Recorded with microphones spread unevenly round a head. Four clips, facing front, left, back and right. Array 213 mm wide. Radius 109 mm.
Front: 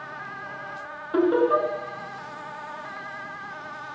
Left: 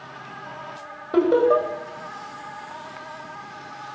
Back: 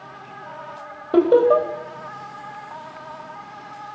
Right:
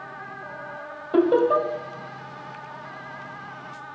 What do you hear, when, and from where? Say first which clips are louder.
1.1 s laughter: left 1 dB, back 6 dB; 175° left, 5.5 m